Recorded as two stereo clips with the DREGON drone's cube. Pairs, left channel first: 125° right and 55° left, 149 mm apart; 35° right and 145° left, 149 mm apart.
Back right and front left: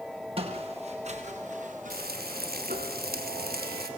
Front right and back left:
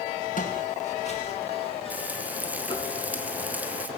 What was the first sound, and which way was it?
Footsteps, straight ahead.